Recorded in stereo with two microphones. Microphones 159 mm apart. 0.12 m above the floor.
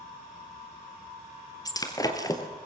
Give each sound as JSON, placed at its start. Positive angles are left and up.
{"t": 1.6, "sound": "breaking glass", "side_deg": 20, "distance_m": 1.8}